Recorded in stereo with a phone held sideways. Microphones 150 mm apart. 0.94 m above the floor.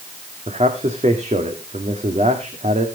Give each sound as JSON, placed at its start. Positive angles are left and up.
{"t": 0.5, "sound": "a man speaking", "side_deg": -50, "distance_m": 1.9}